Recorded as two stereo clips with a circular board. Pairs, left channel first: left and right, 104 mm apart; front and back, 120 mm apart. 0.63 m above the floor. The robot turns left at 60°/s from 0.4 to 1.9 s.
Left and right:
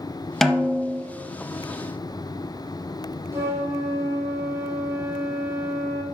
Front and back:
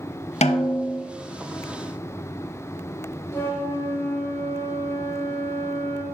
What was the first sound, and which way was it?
A snare drum, straight ahead.